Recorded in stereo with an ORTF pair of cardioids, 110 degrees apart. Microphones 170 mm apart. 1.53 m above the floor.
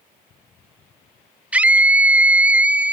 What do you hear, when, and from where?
1.5 s a scream: 10° right, 0.5 m